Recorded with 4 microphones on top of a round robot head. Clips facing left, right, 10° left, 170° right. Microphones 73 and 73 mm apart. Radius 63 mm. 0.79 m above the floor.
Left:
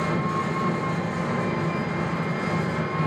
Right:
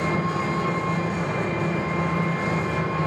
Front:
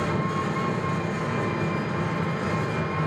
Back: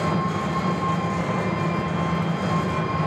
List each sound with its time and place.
0.0 s an engine running: 160° right, 1.0 m